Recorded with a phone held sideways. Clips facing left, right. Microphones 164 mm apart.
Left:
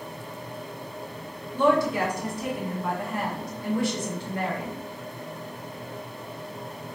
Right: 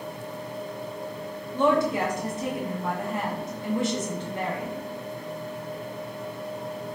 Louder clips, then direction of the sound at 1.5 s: Even; 20° right (ahead or behind).